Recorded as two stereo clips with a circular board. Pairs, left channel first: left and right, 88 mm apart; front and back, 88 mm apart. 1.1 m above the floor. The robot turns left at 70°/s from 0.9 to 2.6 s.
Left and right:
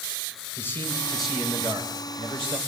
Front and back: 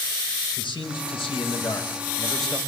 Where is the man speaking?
20° left, 5.5 m; by 2.6 s 95° right, 5.5 m.